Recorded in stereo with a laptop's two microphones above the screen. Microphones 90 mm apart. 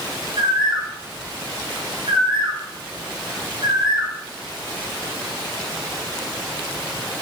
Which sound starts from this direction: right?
A bird, at 0.4 s.